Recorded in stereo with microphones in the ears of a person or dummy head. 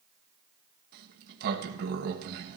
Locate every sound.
0.9 s a sliding door: 55° right (ahead or behind), 1.3 m